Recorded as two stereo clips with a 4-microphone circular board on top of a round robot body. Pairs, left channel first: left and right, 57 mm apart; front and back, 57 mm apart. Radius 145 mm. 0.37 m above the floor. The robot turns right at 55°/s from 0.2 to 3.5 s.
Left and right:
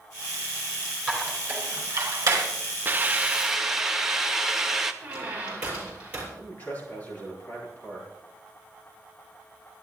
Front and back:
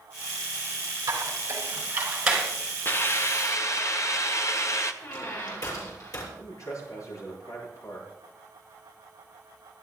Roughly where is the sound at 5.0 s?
Ahead.